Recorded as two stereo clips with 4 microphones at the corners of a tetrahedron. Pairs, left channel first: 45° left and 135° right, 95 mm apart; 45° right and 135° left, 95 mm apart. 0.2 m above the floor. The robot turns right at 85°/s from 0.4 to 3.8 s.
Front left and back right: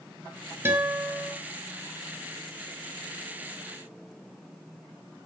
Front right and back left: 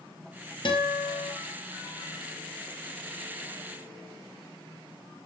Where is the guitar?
75° right, 2.5 m; by 1.3 s 15° right, 2.5 m.